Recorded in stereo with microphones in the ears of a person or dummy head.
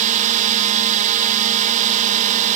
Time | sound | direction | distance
0.0 | a drone | 40° right (ahead or behind) | ?